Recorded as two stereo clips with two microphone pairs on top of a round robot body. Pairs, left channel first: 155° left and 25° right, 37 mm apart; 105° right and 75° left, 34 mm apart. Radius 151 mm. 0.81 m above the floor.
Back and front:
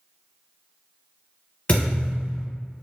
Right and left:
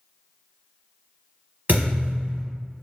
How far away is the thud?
About 0.9 m.